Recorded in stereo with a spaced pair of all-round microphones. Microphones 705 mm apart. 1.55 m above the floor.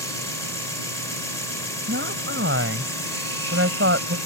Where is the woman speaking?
15° right (ahead or behind).